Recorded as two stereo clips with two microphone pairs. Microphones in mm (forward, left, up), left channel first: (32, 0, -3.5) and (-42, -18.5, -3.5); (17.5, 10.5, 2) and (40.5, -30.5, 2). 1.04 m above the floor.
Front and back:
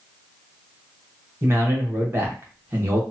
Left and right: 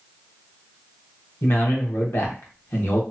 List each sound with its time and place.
1.4 s a man speaking: 140° left, 1.0 m